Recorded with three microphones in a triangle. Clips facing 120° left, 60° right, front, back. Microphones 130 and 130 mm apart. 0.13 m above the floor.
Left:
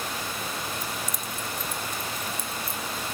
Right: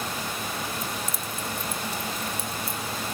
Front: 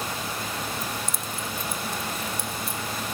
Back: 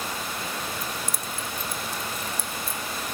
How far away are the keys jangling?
About 0.7 m.